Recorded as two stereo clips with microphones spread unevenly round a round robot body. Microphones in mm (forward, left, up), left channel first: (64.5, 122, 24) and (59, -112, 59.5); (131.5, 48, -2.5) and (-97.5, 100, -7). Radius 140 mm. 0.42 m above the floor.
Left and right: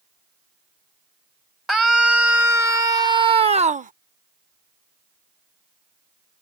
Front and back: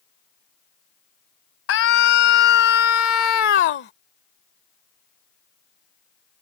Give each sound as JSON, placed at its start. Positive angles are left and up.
{"t": 1.7, "sound": "a scream", "azimuth_deg": 0}